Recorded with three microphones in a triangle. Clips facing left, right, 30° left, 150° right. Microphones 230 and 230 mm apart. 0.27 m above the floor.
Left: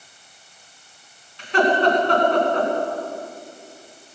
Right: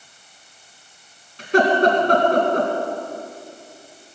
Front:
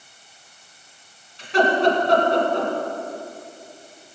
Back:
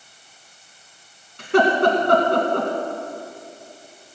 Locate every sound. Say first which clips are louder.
1.4 s laughter: right 2 dB, back 2 dB; 130° right, 2.5 m